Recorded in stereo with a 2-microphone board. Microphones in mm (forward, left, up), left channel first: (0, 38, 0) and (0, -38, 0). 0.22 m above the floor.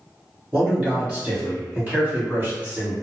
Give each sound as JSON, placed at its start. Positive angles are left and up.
{"t": 0.5, "sound": "a man speaking", "side_deg": -20, "distance_m": 1.4}